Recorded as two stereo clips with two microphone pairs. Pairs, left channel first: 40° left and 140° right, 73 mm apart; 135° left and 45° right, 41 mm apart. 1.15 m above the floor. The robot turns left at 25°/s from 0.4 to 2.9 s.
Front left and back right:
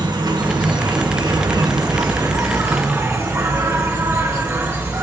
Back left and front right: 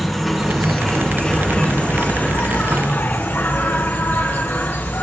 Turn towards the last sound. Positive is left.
turn(degrees=170)